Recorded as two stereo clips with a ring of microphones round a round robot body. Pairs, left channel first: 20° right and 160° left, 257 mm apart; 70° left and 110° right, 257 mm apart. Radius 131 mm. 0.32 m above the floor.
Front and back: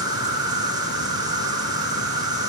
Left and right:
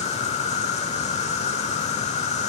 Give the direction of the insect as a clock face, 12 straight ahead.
9 o'clock.